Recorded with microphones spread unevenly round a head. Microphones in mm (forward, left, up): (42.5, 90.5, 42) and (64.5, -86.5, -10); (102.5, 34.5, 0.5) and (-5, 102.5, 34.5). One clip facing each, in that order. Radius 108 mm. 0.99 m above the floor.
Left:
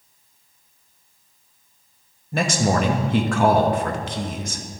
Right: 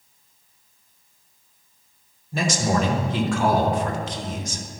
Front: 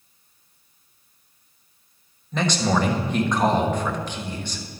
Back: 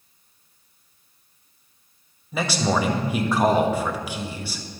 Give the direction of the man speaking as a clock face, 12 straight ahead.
10 o'clock.